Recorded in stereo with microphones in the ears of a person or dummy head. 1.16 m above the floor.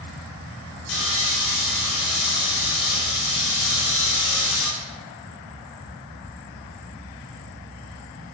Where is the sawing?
70° left (ahead or behind), 3.5 m.